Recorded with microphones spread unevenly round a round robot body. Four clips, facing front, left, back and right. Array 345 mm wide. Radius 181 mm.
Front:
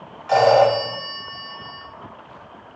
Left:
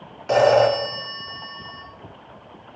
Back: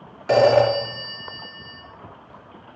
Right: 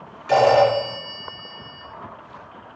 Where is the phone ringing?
170° left, 5.5 m.